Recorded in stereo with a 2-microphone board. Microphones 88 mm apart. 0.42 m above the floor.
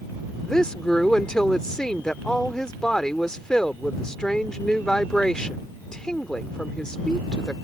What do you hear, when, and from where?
0.4 s a woman speaking: 10° left (ahead or behind)